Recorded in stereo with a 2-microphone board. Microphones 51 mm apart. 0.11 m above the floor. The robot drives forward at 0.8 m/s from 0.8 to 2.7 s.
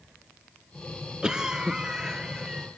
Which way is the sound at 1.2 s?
15° right (ahead or behind).